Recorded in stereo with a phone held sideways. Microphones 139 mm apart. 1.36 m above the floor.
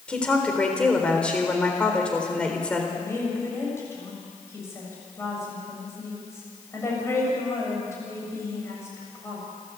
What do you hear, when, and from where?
0.1 s a woman speaking: 10° left (ahead or behind), 4 m
3.0 s a woman speaking: 20° left (ahead or behind), 7.5 m